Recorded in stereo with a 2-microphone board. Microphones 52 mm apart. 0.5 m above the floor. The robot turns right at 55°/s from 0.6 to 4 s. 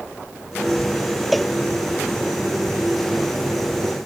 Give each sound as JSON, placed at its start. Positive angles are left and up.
{"t": 1.3, "sound": "a cowbell", "side_deg": 0}